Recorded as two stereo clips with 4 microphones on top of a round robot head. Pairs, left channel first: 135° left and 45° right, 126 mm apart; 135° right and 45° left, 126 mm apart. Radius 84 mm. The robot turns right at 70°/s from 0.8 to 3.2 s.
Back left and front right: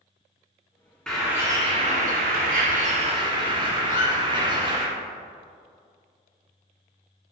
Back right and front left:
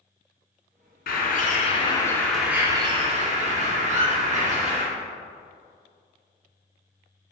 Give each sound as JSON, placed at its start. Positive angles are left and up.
{"t": 1.1, "sound": "a bird", "azimuth_deg": -135, "distance_m": 2.0}
{"t": 3.9, "sound": "a squeak", "azimuth_deg": 110, "distance_m": 2.5}